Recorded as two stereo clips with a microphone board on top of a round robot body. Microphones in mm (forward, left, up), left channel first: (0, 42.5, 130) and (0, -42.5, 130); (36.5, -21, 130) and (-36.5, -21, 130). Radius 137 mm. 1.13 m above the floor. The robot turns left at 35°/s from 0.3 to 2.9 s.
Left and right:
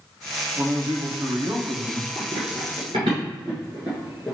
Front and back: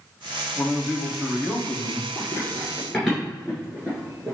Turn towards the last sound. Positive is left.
turn(degrees=165)